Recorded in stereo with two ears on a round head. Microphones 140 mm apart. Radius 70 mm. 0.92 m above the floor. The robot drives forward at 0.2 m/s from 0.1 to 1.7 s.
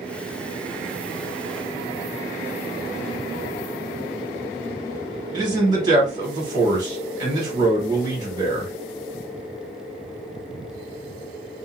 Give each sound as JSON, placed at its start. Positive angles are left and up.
{"t": 5.3, "sound": "a man speaking", "side_deg": -25, "distance_m": 1.4}